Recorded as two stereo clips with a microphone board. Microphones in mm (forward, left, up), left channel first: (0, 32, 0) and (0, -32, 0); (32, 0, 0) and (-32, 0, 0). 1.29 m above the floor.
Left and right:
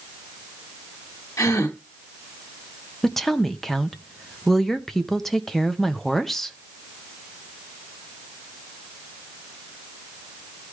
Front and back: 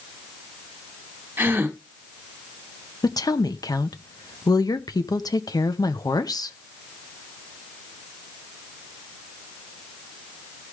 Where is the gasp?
125° left, 1.9 m.